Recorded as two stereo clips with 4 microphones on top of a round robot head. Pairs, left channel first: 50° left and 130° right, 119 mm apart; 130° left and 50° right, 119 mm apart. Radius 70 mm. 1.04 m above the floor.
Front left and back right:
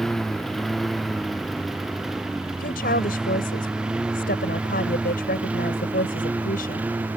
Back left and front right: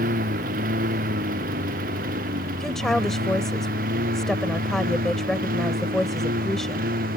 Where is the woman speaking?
45° left.